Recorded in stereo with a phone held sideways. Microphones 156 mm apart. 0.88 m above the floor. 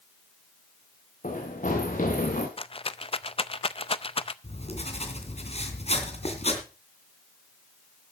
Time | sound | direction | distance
1.2 | running footsteps | 55° left (ahead or behind) | 4 m
2.6 | a rattle | 40° left (ahead or behind) | 0.5 m
4.4 | writing | 45° left (ahead or behind) | 2.5 m